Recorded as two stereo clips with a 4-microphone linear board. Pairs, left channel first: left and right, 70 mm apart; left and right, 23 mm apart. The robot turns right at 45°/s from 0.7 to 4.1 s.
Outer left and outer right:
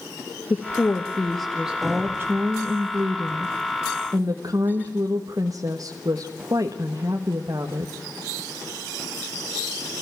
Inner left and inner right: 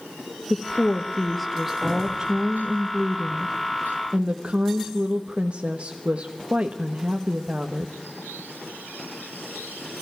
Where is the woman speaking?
140° left, 1.2 m; by 7.9 s 65° right, 1.2 m.